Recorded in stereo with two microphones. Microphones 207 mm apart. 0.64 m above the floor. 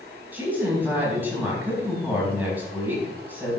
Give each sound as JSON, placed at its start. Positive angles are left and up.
{"t": 0.3, "sound": "a woman speaking", "side_deg": -10, "distance_m": 4.5}